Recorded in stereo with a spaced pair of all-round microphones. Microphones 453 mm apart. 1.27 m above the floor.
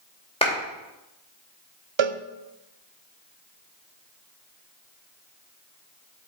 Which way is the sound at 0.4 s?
10° left (ahead or behind).